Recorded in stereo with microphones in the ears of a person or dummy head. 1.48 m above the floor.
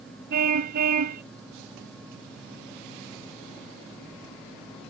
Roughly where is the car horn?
Right.